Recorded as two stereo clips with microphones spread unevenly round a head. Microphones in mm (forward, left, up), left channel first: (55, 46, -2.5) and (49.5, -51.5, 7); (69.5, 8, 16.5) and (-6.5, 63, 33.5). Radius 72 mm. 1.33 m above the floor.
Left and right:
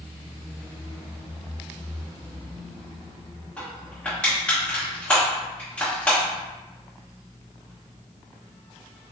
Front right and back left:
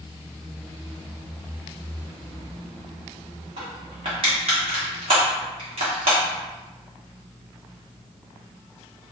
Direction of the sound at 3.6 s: 170° left.